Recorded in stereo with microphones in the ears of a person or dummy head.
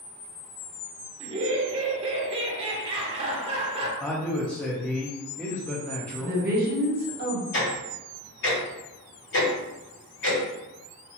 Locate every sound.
1.2 s laughter: 30° right (ahead or behind), 0.8 m
4.0 s a man speaking: 10° left (ahead or behind), 0.6 m
6.2 s a woman speaking: 50° right (ahead or behind), 0.9 m
7.5 s ticking: 65° left (ahead or behind), 1.4 m